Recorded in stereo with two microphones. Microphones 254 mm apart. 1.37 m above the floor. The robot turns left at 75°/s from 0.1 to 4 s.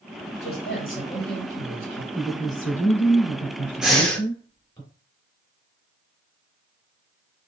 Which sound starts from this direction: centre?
Breathing, at 3.8 s.